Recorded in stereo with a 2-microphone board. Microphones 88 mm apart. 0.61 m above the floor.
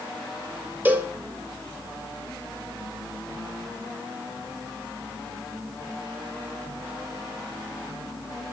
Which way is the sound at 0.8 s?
20° right (ahead or behind).